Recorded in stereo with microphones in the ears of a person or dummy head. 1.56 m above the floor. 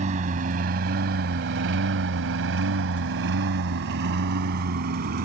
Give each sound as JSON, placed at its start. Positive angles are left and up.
{"t": 0.0, "sound": "a lawn mower", "side_deg": -40}